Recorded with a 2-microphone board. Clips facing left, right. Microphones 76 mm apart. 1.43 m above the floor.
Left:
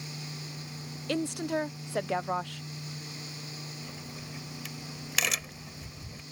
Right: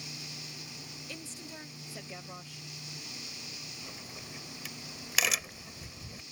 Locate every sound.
1.1 s a woman speaking: 65° left (ahead or behind)
3.8 s a crack: centre (ahead or behind)